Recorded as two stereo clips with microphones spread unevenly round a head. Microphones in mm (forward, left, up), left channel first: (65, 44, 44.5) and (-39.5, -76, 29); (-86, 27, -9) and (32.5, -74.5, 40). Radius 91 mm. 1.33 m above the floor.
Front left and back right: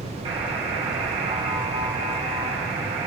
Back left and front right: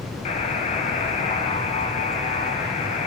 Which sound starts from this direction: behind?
A buzzer, at 0.2 s.